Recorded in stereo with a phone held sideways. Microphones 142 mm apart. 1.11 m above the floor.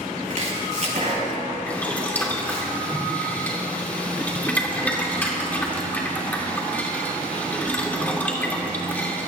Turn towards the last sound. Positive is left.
turn(degrees=10)  # may be behind; listen again after turning